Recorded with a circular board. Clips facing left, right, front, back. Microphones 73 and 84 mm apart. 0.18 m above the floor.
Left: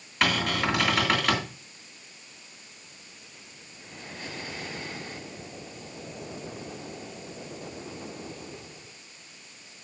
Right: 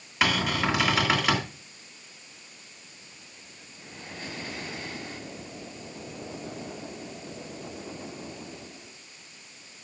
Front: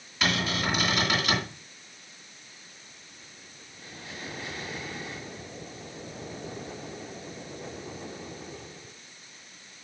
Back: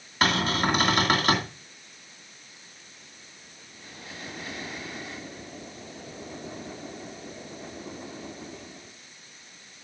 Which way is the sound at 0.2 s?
175° right.